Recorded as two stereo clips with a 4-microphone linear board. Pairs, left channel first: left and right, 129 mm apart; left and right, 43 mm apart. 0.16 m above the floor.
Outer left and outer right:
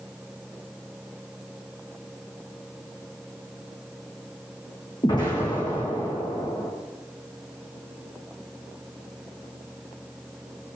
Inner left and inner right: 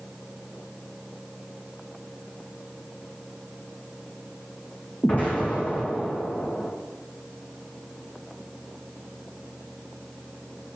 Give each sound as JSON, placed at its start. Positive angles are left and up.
{"t": 5.0, "sound": "an explosion", "side_deg": 35, "distance_m": 3.0}